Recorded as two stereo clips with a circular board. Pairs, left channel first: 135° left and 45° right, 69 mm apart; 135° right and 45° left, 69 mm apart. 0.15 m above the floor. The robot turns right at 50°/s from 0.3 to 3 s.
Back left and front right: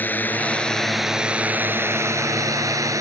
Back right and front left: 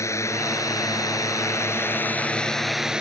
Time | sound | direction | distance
0.0 | a drone | 165° right | ?